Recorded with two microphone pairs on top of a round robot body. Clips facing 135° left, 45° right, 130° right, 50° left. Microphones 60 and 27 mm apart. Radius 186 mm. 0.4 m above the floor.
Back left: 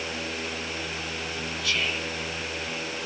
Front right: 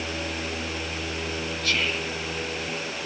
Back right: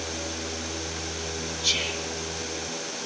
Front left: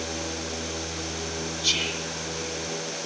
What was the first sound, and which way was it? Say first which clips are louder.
Whispering: front right 2 dB, front left 1 dB; 25° right.